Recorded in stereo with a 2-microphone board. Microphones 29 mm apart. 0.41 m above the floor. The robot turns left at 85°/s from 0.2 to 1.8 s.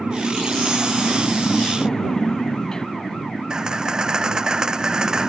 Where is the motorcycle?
65° right; by 5.3 s 160° left.